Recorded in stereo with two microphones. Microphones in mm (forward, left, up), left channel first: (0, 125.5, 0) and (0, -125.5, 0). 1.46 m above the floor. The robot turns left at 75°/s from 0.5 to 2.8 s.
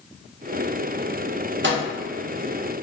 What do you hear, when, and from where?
1.6 s a microwave: 50° right (ahead or behind), 0.6 m; by 1.8 s 35° right (ahead or behind), 0.6 m